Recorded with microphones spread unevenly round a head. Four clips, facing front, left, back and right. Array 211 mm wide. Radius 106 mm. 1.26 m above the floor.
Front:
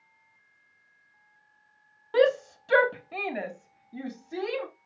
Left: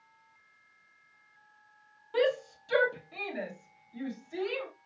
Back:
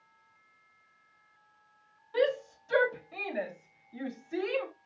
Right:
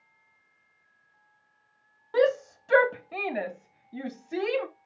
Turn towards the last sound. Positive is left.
turn(degrees=-75)